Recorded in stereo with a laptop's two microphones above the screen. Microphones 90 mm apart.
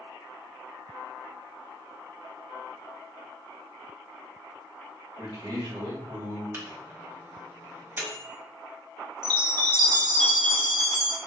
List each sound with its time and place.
5.2 s a man speaking: 65° right (ahead or behind), 1.8 m
6.5 s a microwave: 25° right (ahead or behind), 0.6 m
9.2 s a chime: 50° right (ahead or behind), 0.7 m